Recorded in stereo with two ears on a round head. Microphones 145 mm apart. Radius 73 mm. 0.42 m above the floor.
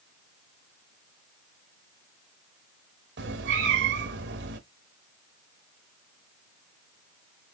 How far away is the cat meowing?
About 0.8 m.